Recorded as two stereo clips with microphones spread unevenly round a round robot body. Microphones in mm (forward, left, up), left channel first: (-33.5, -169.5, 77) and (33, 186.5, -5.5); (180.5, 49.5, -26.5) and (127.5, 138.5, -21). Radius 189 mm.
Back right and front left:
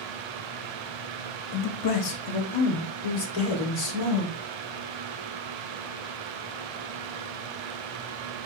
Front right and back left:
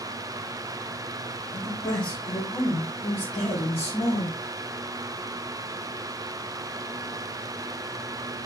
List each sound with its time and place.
1.5 s a man speaking: 100° right, 0.6 m; by 4.3 s 70° right, 2.5 m